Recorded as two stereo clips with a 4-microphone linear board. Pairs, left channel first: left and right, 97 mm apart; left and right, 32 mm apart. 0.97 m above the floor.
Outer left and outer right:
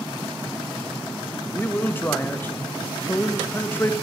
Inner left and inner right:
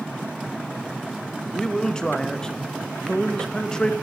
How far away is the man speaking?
About 0.7 m.